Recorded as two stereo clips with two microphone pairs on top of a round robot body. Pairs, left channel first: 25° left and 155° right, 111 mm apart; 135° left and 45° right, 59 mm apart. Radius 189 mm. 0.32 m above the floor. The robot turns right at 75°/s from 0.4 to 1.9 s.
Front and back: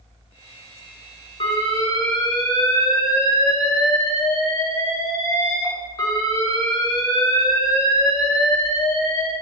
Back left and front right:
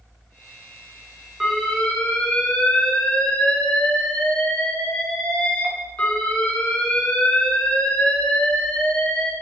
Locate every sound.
1.4 s an alarm: 40° left, 3.5 m; by 9.3 s 80° left, 3.5 m